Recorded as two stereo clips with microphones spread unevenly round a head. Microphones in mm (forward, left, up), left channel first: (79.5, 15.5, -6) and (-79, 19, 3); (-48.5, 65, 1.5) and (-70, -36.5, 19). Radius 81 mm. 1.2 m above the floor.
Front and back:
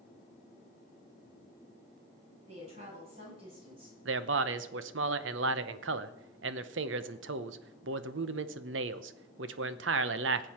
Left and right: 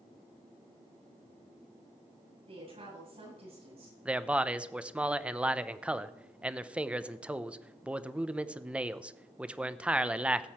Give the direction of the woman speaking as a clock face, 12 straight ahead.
4 o'clock.